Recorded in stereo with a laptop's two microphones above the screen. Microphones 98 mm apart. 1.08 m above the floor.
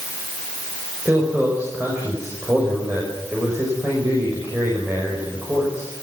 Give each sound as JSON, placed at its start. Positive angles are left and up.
{"t": 1.1, "sound": "a man speaking", "side_deg": -20, "distance_m": 6.0}